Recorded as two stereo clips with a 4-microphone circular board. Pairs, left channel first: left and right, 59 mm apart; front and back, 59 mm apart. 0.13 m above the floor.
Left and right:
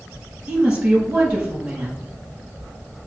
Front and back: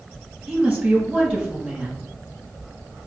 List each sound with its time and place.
0.5 s a woman speaking: 130° right, 1.2 m